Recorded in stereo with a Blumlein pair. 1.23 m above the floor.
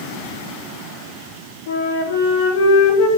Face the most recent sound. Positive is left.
turn(degrees=55)